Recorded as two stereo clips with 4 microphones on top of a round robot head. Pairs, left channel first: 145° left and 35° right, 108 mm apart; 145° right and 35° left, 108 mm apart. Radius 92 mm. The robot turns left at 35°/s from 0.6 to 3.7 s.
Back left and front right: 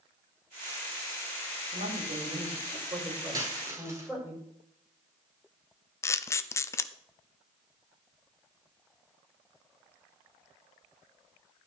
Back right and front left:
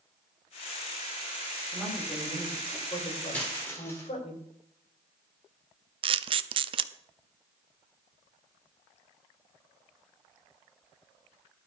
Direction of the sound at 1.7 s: 40° right.